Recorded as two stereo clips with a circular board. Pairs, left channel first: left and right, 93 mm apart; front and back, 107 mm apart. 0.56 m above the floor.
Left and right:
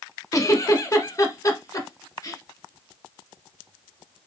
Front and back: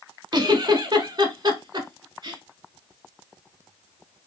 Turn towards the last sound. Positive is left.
turn(degrees=135)